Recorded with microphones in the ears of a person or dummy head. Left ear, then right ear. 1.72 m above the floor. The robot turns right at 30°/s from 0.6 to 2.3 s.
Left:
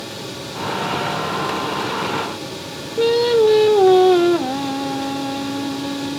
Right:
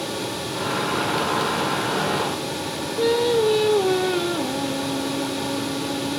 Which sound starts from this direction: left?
Singing, at 3.0 s.